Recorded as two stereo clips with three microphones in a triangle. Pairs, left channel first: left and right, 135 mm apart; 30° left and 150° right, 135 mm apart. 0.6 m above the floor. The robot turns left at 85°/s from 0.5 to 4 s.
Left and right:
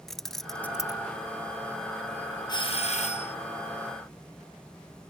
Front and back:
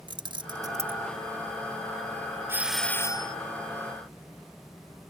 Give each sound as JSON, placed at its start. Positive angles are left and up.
{"t": 0.1, "sound": "keys jangling", "azimuth_deg": 175}
{"t": 2.5, "sound": "a doorbell", "azimuth_deg": 140}